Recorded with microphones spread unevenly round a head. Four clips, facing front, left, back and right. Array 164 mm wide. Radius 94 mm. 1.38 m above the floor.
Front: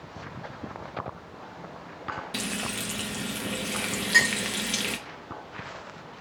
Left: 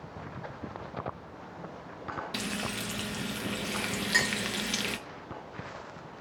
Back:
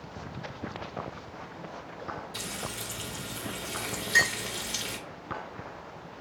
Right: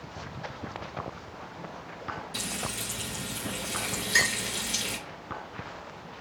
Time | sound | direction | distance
2.3 | frying | 35° left | 0.7 m
4.1 | a clink | 70° left | 1.1 m